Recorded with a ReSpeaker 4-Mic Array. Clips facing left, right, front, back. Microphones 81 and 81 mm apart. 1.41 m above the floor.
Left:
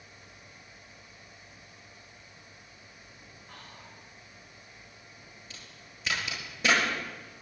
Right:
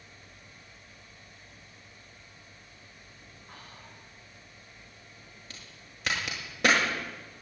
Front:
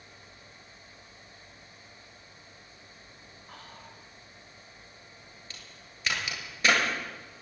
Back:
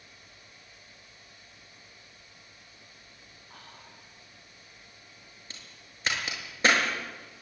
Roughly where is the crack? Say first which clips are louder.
Even, front 1 dB; behind right.